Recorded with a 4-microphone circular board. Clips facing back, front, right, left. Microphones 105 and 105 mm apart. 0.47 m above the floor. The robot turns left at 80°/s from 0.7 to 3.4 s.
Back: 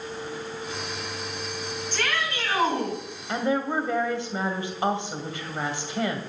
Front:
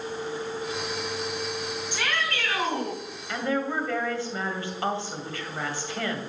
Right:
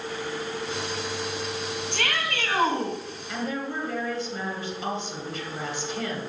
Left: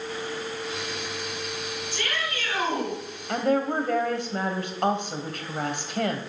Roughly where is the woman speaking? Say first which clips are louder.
Back 2 dB, left 8 dB; behind left.